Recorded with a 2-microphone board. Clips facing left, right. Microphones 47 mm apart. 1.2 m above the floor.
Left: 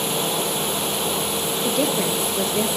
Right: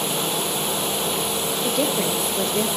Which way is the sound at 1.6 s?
Centre (ahead or behind).